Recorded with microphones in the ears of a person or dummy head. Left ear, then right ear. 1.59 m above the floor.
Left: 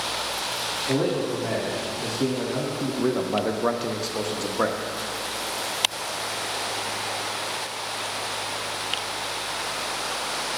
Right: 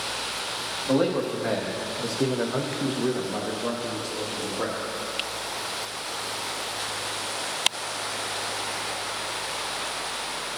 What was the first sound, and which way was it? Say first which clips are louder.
A man speaking: right 3 dB; 65° right (ahead or behind).